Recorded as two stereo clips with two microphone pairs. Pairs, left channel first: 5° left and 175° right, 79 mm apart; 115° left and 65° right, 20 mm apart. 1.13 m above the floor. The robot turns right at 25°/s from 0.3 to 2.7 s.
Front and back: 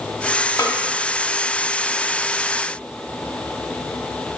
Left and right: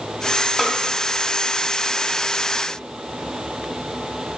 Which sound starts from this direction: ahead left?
A snare drum, at 0.6 s.